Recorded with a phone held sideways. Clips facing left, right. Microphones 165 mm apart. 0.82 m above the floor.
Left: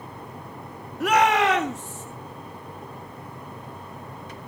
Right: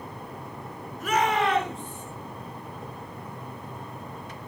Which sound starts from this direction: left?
A shout, at 1.0 s.